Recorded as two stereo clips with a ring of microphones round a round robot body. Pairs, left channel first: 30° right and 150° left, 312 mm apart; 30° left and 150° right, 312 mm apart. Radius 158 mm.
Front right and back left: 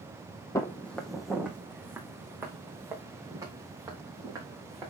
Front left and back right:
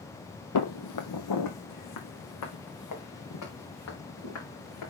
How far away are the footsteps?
About 0.8 m.